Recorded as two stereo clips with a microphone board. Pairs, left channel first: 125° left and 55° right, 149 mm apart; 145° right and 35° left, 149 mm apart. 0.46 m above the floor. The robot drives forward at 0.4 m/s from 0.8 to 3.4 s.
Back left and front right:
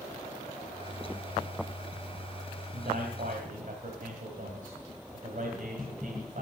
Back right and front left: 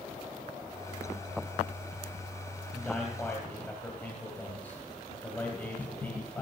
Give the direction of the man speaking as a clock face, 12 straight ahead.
2 o'clock.